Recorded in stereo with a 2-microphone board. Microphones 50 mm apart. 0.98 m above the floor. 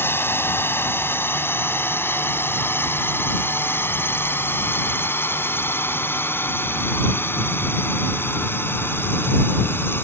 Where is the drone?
55° left (ahead or behind); by 10.0 s 50° left (ahead or behind).